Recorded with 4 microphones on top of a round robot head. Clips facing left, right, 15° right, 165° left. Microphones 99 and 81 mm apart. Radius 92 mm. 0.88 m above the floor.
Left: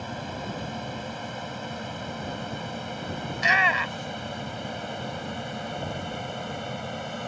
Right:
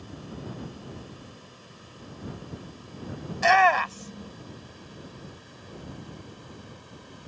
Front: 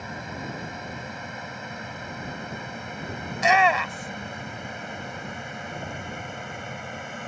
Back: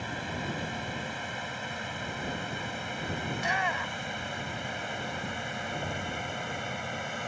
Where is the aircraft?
70° left; by 7.3 s 75° left.